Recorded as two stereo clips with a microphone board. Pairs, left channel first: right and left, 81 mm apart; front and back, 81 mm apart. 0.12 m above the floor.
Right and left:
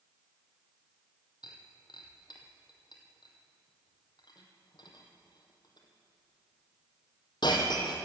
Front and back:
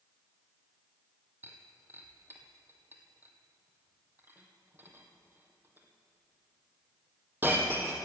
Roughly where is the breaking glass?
Behind right.